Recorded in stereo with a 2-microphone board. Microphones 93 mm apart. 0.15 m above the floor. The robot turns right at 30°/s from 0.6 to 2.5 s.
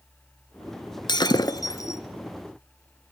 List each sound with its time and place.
1.1 s breaking glass: 50° left (ahead or behind), 1.5 m; by 2.0 s 30° left (ahead or behind), 1.5 m